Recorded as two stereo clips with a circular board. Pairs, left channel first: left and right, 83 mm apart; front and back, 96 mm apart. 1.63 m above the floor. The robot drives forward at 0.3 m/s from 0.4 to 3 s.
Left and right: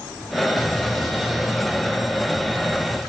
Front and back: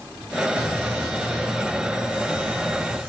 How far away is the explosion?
About 3.5 m.